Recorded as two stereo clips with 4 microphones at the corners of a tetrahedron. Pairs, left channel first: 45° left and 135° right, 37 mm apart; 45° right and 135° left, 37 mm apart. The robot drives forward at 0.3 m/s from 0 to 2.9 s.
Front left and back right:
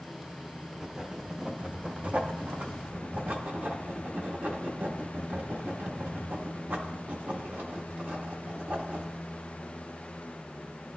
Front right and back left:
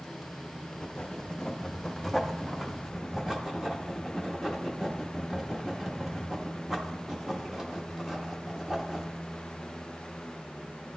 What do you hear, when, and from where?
0.7 s writing: 65° right, 0.6 m; by 9.2 s 145° right, 0.8 m